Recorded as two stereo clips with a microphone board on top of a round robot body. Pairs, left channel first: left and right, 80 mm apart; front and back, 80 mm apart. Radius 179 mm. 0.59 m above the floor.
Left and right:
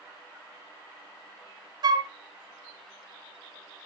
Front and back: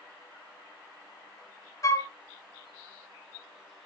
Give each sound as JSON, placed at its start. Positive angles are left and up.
{"t": 1.8, "sound": "a flute", "azimuth_deg": -55, "distance_m": 0.6}